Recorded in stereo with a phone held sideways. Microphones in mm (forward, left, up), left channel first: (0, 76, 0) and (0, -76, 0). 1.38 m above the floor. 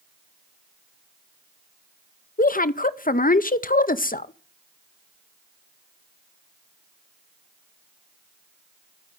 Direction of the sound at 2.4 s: 60° left (ahead or behind).